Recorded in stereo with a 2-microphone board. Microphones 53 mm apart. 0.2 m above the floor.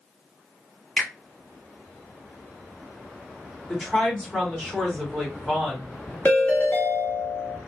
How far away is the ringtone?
About 1.0 m.